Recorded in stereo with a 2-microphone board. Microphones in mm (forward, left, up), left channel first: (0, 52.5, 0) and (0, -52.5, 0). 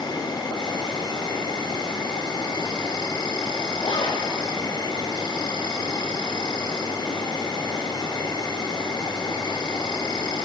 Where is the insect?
45° left (ahead or behind), 3 m.